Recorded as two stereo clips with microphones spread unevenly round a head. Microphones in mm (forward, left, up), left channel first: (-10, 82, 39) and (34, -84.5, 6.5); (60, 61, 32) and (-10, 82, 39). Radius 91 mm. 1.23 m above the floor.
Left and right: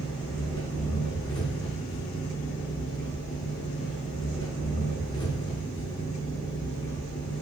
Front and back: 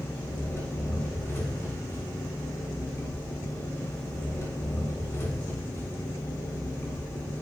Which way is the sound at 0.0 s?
45° left.